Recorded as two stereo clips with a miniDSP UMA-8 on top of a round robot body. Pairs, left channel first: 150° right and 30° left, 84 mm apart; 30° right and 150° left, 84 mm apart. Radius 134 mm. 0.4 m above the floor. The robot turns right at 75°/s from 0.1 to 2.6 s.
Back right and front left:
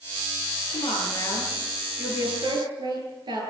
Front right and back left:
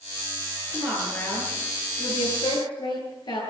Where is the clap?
I don't hear a clap.